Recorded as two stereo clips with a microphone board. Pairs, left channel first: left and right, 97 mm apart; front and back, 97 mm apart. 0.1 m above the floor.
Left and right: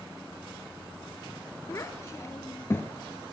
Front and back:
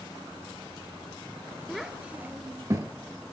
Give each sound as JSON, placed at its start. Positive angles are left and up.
{"t": 1.7, "sound": "a child speaking", "azimuth_deg": 90, "distance_m": 0.9}